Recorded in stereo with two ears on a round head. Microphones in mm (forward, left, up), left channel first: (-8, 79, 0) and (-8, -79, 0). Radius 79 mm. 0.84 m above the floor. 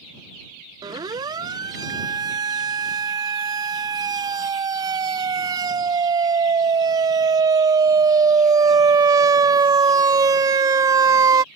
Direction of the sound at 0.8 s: 20° right (ahead or behind).